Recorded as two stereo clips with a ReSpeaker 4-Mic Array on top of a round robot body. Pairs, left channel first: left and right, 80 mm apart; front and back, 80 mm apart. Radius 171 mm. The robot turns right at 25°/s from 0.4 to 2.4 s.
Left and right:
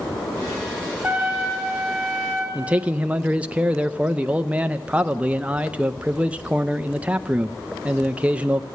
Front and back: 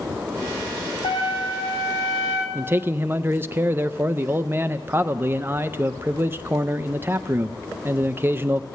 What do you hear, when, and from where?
1.0 s a trumpet: 5° right, 3.5 m; by 2.5 s 30° left, 3.5 m
2.5 s a man speaking: 150° right, 0.6 m